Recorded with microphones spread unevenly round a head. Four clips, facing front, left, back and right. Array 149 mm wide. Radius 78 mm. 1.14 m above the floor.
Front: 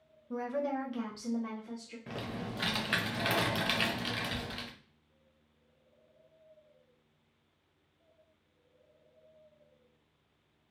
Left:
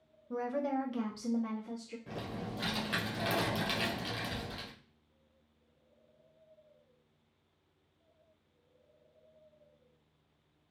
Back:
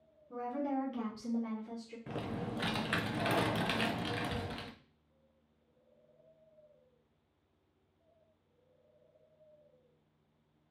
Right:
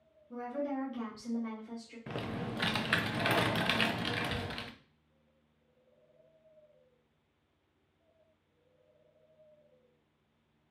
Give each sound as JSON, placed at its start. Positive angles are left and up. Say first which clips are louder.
{"t": 0.3, "sound": "a woman speaking", "louder": "left 3 dB, front 2 dB", "azimuth_deg": 55, "distance_m": 0.6}
{"t": 2.1, "sound": "typing on a keyboard", "louder": "right 4 dB, even", "azimuth_deg": -85, "distance_m": 0.6}